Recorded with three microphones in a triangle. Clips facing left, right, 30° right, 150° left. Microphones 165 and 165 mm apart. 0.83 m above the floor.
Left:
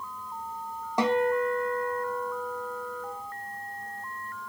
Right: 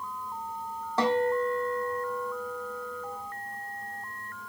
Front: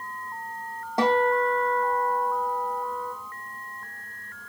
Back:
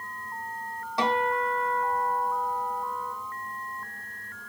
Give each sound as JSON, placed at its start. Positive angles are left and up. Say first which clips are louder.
{"t": 1.0, "sound": "a guitar", "louder": "left 1 dB, front 5 dB", "azimuth_deg": 15, "distance_m": 2.5}